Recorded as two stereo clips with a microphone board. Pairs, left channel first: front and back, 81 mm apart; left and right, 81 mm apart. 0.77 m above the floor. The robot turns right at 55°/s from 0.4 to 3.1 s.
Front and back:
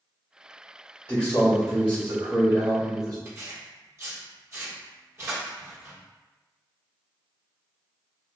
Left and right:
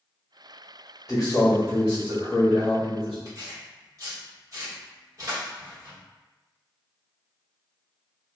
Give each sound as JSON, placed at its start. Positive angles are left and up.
{"t": 1.1, "sound": "a man speaking", "azimuth_deg": 70, "distance_m": 1.4}
{"t": 3.2, "sound": "tearing paper", "azimuth_deg": -130, "distance_m": 1.3}